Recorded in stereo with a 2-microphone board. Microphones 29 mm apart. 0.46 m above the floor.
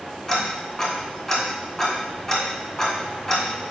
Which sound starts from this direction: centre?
Ticking, at 0.3 s.